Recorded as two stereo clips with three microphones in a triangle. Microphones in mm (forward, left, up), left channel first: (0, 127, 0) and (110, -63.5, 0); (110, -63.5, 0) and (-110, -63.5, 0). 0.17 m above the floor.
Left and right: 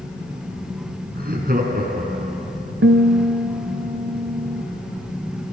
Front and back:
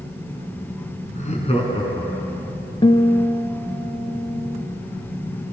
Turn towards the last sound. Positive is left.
turn(degrees=-65)